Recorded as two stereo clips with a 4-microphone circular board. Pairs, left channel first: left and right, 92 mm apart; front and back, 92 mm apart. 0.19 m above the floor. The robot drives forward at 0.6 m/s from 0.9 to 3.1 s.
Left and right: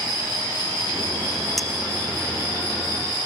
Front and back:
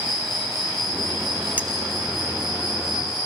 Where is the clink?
175° left, 0.8 m.